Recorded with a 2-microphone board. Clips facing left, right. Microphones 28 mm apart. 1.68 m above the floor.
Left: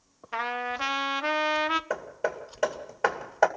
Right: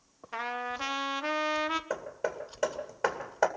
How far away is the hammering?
About 2 m.